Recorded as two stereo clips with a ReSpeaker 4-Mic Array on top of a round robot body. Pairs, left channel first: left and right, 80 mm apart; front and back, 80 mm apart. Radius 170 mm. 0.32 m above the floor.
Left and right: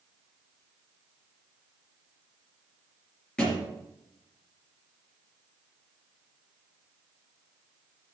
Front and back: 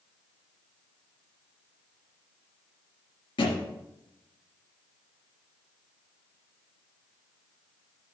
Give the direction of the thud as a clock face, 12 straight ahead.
12 o'clock.